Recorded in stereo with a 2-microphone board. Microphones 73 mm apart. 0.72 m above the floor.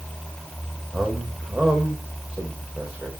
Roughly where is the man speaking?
Centre.